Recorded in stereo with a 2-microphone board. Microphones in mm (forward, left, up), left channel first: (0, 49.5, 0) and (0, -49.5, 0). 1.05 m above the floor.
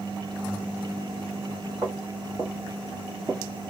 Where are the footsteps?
35° right (ahead or behind), 1.5 m; by 3.4 s 10° right (ahead or behind), 1.0 m.